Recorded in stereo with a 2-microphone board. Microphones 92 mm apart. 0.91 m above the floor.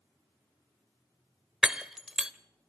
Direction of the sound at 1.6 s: 10° right (ahead or behind).